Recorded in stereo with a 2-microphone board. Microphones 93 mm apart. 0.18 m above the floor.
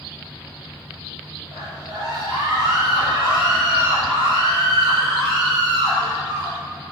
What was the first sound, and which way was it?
A scream, 55° right (ahead or behind).